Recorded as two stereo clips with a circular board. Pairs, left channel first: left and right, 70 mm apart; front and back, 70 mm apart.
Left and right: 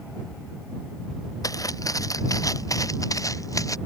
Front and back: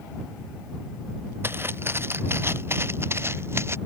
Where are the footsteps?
125° left.